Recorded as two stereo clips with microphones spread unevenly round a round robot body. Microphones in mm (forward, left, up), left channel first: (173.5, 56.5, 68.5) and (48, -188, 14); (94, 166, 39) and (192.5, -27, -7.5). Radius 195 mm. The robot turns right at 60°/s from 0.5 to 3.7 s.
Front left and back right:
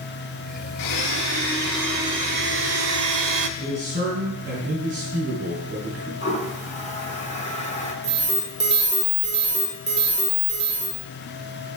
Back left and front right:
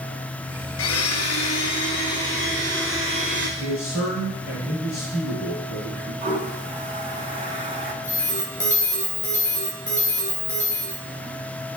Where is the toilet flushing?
10° right, 1.8 m.